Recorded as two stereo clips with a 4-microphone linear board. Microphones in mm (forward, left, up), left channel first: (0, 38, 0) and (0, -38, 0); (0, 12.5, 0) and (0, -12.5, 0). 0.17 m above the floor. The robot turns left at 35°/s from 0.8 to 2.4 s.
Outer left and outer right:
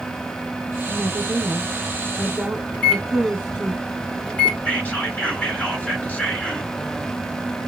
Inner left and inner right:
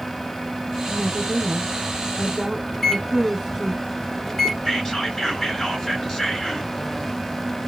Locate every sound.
0.9 s a woman speaking: 30° right (ahead or behind), 1.2 m; by 3.7 s 20° right (ahead or behind), 1.2 m
2.7 s a microwave: 20° left (ahead or behind), 1.7 m
4.7 s whispering: 25° left (ahead or behind), 2 m